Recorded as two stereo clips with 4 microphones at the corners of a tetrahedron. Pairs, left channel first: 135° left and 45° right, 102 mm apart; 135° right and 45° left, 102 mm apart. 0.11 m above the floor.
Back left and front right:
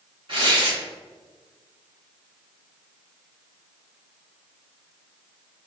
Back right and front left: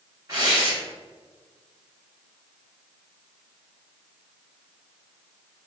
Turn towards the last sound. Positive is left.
turn(degrees=-15)